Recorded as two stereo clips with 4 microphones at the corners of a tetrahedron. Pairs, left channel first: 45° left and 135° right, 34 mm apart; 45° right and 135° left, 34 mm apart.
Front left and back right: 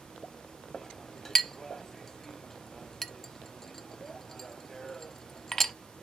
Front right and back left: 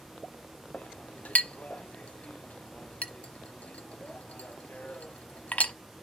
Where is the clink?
25° right, 1.0 m.